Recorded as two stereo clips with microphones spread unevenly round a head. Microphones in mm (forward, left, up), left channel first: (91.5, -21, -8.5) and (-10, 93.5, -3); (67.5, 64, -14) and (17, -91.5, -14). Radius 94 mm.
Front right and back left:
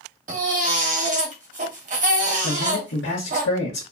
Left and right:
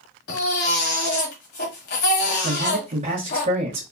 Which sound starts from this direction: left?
A baby crying, at 0.3 s.